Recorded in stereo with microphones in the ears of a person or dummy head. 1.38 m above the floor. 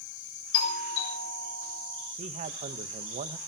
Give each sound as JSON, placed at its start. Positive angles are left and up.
{"t": 0.5, "sound": "a doorbell", "side_deg": 70, "distance_m": 7.5}
{"t": 2.2, "sound": "a man speaking", "side_deg": -40, "distance_m": 1.0}